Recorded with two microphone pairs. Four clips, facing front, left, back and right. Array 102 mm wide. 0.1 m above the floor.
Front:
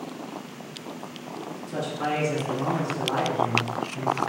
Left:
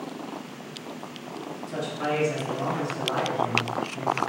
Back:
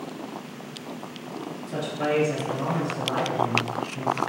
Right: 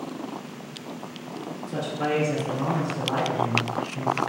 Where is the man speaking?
155° left, 1.3 m; by 4.2 s 55° right, 1.1 m.